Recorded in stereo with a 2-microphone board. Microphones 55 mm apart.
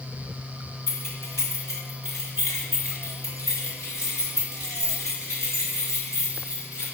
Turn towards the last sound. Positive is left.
turn(degrees=70)  # may be behind; listen again after turning